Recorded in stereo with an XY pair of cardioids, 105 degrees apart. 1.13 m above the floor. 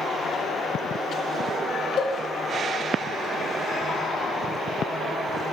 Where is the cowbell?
70° left, 1.2 m.